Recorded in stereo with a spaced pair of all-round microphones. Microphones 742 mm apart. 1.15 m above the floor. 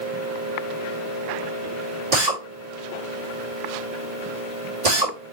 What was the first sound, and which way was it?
A drill, 60° right (ahead or behind).